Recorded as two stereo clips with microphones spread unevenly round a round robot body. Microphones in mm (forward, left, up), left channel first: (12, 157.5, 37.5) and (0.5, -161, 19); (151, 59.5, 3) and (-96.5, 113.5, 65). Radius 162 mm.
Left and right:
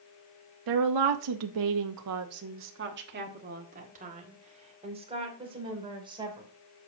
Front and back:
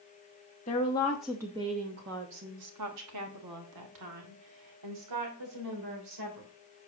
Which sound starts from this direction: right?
A woman speaking, at 0.7 s.